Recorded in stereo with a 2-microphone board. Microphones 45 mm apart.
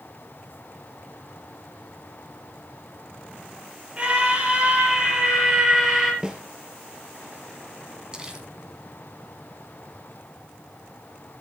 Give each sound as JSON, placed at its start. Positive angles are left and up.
{"t": 4.0, "sound": "a scream", "side_deg": -25, "distance_m": 6.0}
{"t": 6.2, "sound": "a snare drum", "side_deg": -15, "distance_m": 2.5}
{"t": 8.1, "sound": "crumpling", "side_deg": -20, "distance_m": 2.5}